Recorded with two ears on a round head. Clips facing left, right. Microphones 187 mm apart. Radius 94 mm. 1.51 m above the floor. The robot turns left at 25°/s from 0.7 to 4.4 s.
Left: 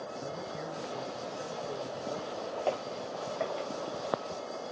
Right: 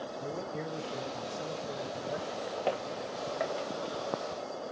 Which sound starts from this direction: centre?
Footsteps, at 2.7 s.